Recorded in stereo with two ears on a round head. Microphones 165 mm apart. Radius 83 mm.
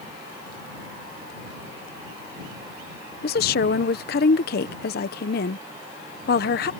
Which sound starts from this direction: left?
A woman speaking, at 3.2 s.